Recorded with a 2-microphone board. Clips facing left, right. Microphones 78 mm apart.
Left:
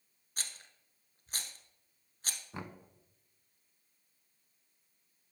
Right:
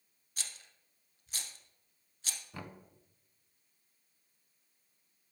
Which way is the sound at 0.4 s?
45° left (ahead or behind).